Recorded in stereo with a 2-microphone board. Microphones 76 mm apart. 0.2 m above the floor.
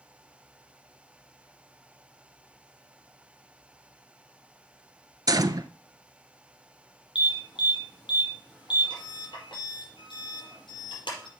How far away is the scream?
No scream in this recording.